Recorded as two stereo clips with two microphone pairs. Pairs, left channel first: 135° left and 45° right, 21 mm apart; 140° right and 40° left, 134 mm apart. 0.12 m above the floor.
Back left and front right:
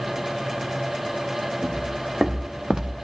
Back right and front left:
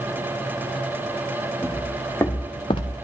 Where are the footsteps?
60° right, 2.5 m; by 2.9 s 105° right, 0.8 m.